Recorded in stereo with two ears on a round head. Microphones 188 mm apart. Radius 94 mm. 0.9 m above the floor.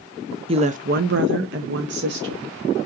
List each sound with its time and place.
0.5 s a woman speaking: 25° right (ahead or behind), 0.6 m; by 2.5 s 50° right (ahead or behind), 1.1 m